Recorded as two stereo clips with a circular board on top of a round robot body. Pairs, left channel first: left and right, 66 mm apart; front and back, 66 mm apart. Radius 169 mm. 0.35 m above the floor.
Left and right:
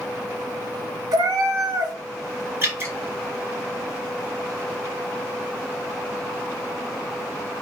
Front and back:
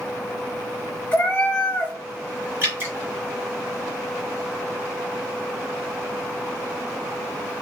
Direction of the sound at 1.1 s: 65° right.